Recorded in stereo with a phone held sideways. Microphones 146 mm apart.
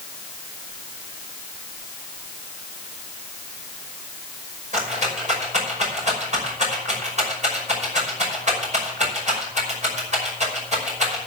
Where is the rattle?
55° right (ahead or behind), 5.5 m.